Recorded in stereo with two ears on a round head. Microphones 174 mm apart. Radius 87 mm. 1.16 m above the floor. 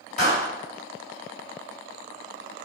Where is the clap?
40° left (ahead or behind), 4 m.